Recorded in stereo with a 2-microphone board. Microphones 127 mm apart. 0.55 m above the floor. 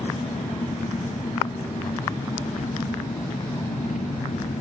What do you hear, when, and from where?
0.0 s an engine running: 85° left, 3 m